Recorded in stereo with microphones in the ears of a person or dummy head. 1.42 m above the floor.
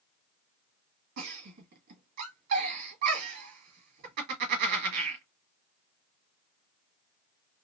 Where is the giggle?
60° right (ahead or behind), 1.2 m.